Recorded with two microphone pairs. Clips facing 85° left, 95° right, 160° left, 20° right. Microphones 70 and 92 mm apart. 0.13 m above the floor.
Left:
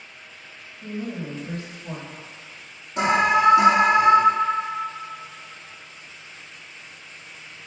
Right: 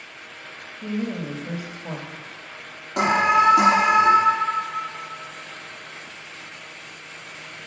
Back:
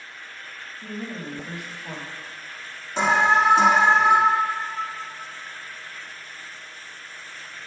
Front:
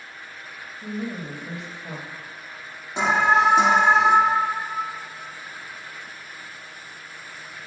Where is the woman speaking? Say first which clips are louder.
Right 4 dB, front 3 dB; 85° right, 2.5 m.